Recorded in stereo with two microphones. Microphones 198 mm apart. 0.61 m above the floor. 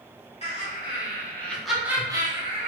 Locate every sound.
0.4 s laughter: 30° left (ahead or behind), 1.3 m; by 2.7 s 35° right (ahead or behind), 1.0 m